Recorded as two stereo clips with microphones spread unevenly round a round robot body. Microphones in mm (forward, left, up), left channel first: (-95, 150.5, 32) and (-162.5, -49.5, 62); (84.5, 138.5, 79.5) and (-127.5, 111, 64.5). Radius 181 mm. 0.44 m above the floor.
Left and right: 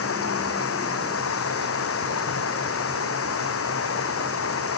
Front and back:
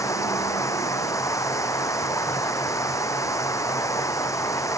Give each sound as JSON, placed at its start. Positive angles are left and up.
{"t": 0.0, "sound": "running water", "azimuth_deg": 85}